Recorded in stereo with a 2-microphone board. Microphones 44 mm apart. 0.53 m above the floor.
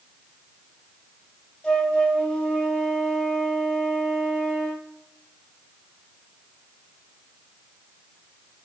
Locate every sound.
1.6 s a flute: 25° left (ahead or behind), 1.4 m